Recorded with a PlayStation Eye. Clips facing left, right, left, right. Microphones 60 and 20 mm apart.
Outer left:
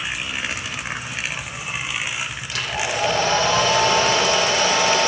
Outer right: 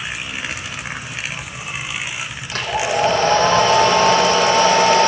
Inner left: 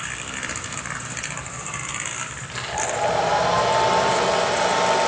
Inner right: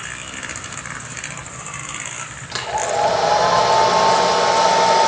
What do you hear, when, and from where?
2.5 s a hair dryer: 45° right (ahead or behind), 6 m